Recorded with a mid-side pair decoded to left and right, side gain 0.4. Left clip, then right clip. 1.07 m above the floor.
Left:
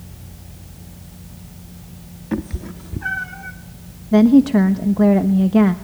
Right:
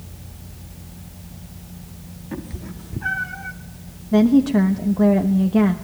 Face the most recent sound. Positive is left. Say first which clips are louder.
# left 3 dB
turn(degrees=25)